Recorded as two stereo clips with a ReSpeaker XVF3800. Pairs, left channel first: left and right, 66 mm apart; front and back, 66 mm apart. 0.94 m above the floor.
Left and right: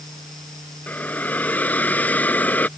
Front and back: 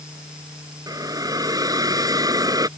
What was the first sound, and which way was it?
A hiss, 155° left.